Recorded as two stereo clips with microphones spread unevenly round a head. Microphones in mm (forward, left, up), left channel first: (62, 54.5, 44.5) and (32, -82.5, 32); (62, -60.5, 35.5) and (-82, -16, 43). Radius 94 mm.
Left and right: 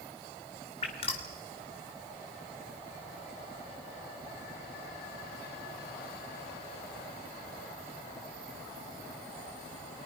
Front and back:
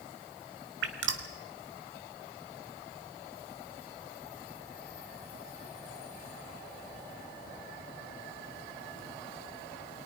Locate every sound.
0.8 s dripping: 140° left, 1.8 m